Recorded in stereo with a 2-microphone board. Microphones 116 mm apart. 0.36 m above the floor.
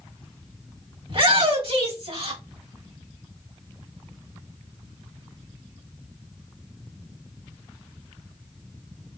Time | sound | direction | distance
1.1 | a shout | 55° right (ahead or behind) | 2.5 m